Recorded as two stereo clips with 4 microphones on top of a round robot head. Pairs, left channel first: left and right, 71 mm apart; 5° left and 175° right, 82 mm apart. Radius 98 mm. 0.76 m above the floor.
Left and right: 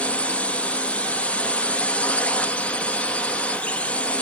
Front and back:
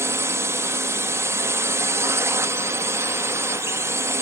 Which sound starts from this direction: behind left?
A drone, at 0.0 s.